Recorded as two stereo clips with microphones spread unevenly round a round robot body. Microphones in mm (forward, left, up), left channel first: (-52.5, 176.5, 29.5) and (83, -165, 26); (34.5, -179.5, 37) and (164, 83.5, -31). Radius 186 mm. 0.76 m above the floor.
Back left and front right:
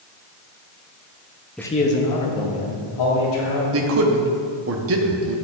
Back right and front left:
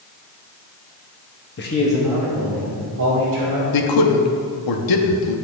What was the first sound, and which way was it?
A man speaking, 160° right.